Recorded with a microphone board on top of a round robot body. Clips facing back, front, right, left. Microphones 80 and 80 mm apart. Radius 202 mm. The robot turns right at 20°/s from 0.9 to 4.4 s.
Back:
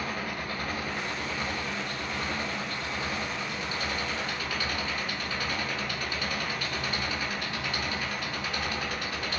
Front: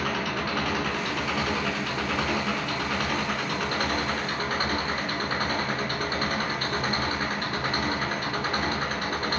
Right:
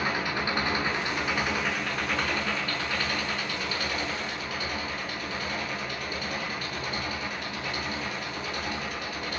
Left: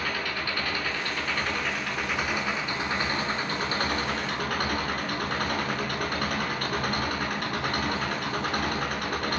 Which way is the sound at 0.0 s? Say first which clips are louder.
Front 5 dB, right 2 dB; 20° right.